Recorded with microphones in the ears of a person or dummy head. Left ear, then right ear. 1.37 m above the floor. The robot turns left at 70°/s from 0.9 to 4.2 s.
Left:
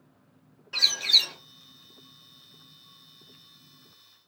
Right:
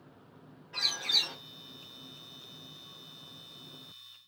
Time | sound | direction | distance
0.7 | a bird | 50° left | 1.4 m